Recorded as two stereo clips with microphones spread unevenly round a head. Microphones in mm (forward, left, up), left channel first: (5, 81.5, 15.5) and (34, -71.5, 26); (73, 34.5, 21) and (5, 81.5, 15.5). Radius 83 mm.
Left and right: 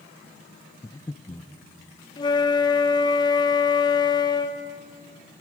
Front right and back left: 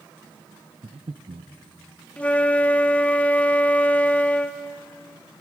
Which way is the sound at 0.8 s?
175° left.